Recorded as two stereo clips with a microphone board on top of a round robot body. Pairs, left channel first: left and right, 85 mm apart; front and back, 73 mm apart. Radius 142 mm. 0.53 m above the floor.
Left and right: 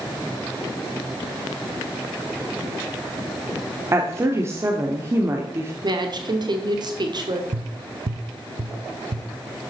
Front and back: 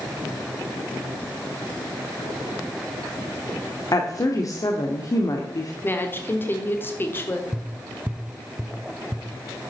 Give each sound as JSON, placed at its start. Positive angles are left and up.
{"t": 3.9, "sound": "a woman speaking", "azimuth_deg": -35, "distance_m": 1.4}
{"t": 5.8, "sound": "a woman speaking", "azimuth_deg": -60, "distance_m": 1.6}
{"t": 7.5, "sound": "tapping", "azimuth_deg": -100, "distance_m": 0.8}